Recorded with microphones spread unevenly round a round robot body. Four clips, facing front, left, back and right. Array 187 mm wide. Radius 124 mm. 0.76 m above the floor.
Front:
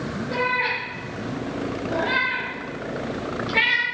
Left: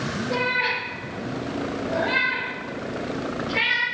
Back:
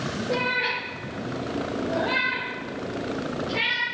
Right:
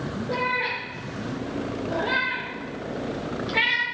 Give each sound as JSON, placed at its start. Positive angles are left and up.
{"t": 0.3, "sound": "a cat meowing", "azimuth_deg": -115, "distance_m": 3.5}